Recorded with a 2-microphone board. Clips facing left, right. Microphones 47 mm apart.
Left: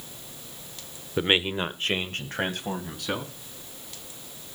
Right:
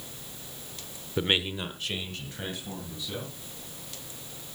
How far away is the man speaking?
About 0.9 m.